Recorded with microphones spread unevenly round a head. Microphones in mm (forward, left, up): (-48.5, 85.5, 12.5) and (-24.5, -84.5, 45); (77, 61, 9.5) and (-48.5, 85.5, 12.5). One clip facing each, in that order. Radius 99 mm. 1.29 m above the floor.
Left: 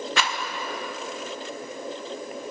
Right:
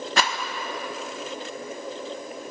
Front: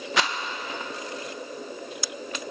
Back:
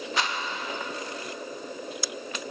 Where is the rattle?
20° right, 0.7 m.